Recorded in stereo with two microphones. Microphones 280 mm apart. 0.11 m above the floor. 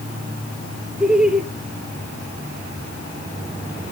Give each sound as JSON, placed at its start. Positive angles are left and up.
{"t": 1.0, "sound": "laughter", "side_deg": -5, "distance_m": 1.7}